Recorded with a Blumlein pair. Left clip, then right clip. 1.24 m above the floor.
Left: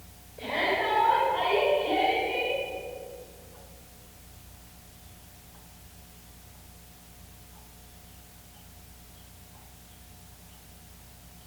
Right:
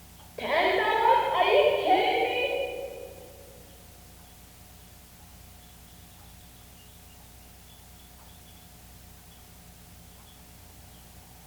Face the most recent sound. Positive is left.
turn(degrees=-60)